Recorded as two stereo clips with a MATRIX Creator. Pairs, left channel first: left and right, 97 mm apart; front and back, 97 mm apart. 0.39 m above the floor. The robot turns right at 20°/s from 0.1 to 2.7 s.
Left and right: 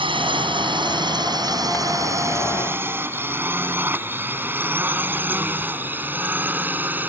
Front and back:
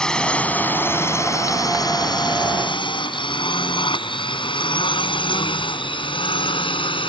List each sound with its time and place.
0.0 s a drone: 80° right; by 7.1 s 20° right